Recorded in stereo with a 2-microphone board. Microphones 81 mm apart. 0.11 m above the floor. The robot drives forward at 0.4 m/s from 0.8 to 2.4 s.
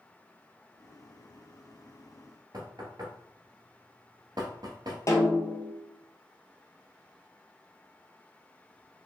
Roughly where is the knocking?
Right.